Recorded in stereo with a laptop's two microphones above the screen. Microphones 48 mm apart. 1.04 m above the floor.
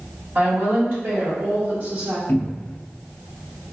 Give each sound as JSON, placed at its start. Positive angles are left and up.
{"t": 0.3, "sound": "a woman speaking", "side_deg": -70, "distance_m": 1.9}
{"t": 2.3, "sound": "a cupboard door", "side_deg": 50, "distance_m": 0.5}